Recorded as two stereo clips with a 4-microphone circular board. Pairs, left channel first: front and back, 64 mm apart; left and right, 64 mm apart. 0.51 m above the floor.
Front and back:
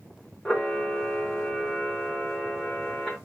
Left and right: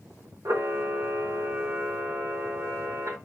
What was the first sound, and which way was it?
A camera shutter, 75° right.